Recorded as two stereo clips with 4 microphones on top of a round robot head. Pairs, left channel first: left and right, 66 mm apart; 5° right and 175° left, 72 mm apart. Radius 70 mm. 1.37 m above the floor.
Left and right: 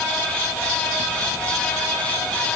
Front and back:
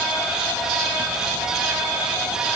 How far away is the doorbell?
No doorbell in this recording.